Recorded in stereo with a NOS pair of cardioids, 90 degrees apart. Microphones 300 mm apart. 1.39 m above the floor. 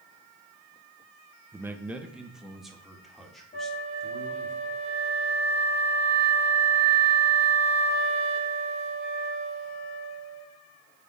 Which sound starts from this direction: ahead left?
A flute, at 3.5 s.